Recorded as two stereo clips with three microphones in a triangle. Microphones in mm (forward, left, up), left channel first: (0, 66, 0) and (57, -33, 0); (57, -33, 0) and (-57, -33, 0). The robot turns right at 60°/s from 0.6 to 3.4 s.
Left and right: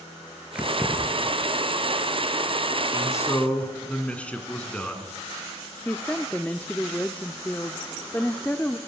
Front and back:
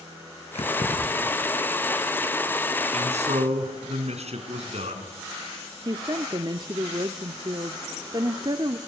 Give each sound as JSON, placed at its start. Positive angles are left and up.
{"t": 0.6, "sound": "keys jangling", "azimuth_deg": 20, "distance_m": 5.0}
{"t": 2.9, "sound": "a man speaking", "azimuth_deg": 170, "distance_m": 4.5}
{"t": 5.8, "sound": "a woman speaking", "azimuth_deg": -170, "distance_m": 0.8}